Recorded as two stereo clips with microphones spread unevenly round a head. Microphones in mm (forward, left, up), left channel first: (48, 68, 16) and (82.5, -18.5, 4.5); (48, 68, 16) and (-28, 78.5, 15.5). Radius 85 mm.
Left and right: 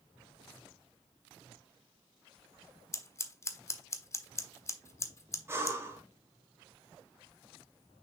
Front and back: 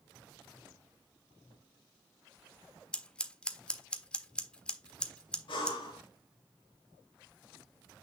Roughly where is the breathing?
Ahead.